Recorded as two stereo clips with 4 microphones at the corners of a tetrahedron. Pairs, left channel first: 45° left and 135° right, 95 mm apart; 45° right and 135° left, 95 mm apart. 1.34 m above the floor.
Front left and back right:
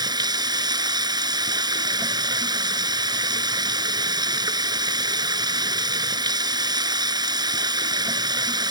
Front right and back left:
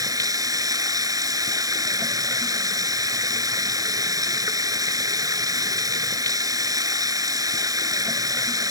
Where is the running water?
175° right.